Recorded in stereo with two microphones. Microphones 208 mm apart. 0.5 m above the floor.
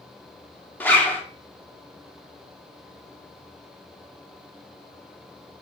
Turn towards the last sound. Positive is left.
turn(degrees=10)  # may be behind; listen again after turning